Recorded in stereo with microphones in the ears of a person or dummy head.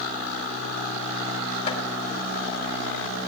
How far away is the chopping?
About 3 m.